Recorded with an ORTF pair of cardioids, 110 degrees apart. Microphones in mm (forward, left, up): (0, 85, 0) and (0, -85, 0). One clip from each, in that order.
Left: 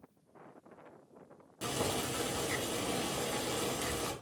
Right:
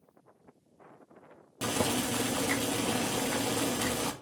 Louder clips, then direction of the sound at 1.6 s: Right 5 dB; 40° right.